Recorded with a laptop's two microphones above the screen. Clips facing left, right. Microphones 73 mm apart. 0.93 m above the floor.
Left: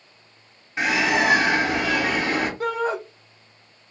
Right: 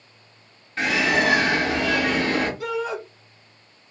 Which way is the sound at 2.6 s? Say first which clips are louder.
Left 3 dB; 40° left (ahead or behind).